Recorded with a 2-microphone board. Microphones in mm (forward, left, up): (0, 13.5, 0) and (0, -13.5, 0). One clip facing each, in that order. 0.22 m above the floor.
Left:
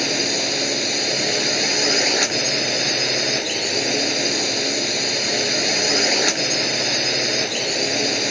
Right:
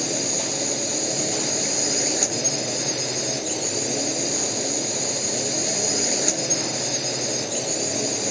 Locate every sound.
0.0 s a drone: 45° left (ahead or behind)